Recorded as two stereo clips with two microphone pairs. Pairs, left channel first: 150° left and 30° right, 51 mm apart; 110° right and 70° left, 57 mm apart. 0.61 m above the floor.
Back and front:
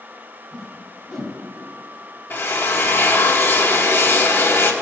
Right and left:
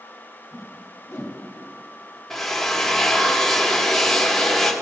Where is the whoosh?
125° right, 1.6 m.